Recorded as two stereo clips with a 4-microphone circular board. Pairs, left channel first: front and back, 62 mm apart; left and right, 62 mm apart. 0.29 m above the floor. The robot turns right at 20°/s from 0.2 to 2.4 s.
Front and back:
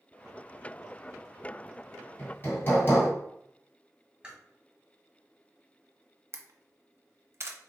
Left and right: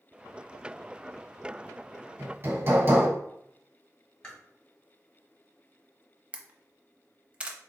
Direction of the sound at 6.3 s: 155° right.